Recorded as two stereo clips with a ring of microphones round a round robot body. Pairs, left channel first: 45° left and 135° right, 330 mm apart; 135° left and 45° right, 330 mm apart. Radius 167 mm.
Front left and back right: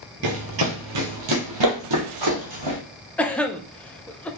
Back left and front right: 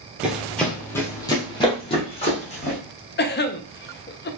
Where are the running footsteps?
130° right, 1.2 m; by 2.8 s 155° right, 2.5 m.